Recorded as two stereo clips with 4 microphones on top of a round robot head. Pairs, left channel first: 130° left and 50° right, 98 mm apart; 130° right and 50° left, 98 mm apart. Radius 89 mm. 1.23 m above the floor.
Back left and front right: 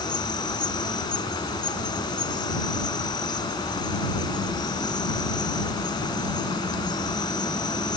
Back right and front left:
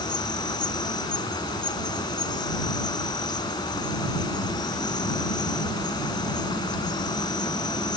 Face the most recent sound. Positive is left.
turn(degrees=180)